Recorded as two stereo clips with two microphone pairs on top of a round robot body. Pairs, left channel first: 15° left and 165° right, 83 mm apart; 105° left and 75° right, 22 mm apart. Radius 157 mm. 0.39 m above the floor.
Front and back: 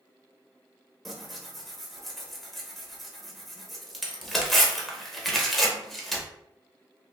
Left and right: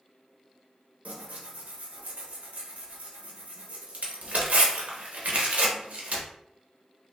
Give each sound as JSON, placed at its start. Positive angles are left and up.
{"t": 1.1, "sound": "tearing paper", "azimuth_deg": -65, "distance_m": 0.7}